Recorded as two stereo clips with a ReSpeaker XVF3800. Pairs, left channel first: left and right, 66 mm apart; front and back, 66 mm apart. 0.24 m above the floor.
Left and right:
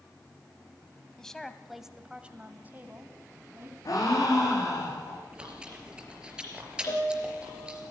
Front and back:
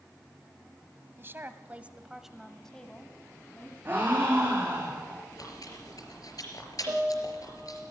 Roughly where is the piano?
Behind left.